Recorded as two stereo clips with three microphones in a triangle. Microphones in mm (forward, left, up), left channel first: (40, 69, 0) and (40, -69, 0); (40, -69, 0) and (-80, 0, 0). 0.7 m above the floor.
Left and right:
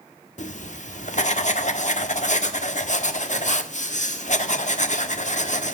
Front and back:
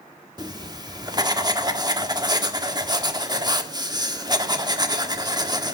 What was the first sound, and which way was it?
Writing, 95° left.